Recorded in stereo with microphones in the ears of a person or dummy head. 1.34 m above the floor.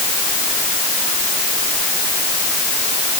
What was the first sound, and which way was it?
Only background noise.